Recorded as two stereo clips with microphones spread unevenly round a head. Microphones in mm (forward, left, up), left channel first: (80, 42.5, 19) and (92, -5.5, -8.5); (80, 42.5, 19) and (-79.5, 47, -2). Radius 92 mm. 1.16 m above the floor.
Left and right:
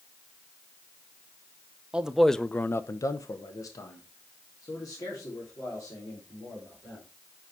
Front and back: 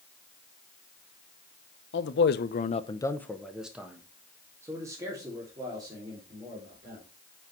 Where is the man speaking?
20° right, 0.8 m; by 7.0 s 115° left, 4 m.